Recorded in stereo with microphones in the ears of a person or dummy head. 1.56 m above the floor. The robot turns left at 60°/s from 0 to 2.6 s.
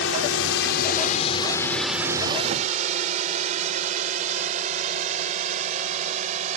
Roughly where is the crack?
I don't hear a crack.